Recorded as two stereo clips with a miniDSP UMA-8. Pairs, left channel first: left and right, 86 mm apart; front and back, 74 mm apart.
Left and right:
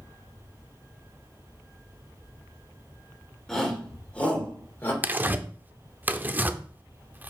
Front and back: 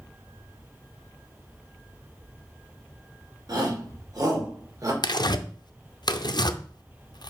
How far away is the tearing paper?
About 0.6 m.